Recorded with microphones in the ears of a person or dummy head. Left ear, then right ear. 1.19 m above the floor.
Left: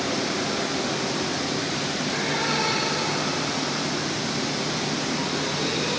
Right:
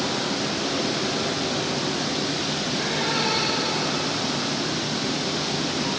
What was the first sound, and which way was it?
Only background noise.